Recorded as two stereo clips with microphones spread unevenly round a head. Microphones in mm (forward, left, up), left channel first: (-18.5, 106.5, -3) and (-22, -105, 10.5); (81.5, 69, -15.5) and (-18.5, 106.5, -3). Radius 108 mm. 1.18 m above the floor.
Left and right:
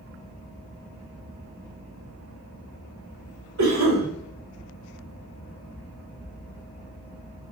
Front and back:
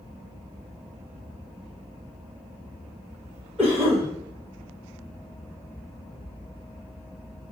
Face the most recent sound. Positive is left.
turn(degrees=-115)